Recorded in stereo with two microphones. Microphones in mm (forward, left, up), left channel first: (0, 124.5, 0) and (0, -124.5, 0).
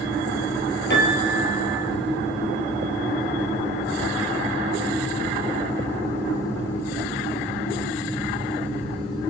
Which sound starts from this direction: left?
A piano, at 0.9 s.